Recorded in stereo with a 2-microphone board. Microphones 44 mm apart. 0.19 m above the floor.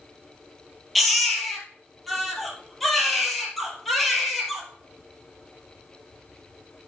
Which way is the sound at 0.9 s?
Centre (ahead or behind).